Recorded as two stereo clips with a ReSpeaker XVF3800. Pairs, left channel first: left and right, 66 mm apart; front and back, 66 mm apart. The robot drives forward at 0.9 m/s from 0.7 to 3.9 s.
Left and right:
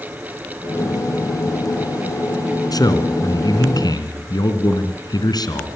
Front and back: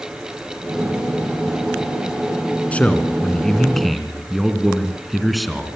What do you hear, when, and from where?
2.7 s a man speaking: 70° left, 3 m; by 5.7 s 90° left, 3 m